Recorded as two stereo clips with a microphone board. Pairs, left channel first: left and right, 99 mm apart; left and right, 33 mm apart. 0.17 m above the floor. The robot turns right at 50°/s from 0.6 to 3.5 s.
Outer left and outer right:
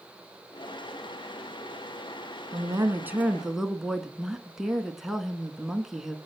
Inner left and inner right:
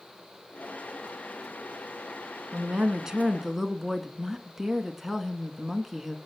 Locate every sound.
2.5 s a woman speaking: 55° right, 1.7 m; by 6.2 s 5° right, 1.7 m